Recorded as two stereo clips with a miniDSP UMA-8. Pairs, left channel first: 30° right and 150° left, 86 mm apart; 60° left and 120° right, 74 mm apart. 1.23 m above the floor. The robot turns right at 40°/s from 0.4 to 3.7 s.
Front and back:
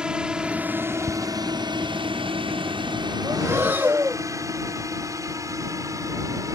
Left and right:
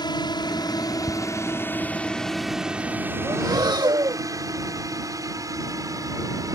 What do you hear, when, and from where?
0.0 s a drone: 70° left; by 6.6 s 160° right
1.1 s ticking: 10° right; by 1.1 s 5° right
3.2 s breathing: 160° right; by 4.2 s 140° right